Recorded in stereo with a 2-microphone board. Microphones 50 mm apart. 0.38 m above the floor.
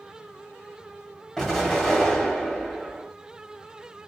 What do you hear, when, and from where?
1.4 s an explosion: 5° left (ahead or behind), 1.5 m